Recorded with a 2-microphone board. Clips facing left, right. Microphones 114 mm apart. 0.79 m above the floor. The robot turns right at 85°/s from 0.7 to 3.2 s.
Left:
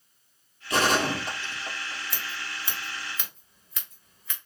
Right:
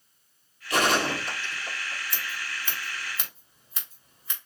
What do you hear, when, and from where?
0.7 s a gunshot: 25° left (ahead or behind), 4 m; by 2.0 s 45° left (ahead or behind), 4 m
2.1 s scissors: 60° left (ahead or behind), 2.5 m; by 4.4 s 35° right (ahead or behind), 2.5 m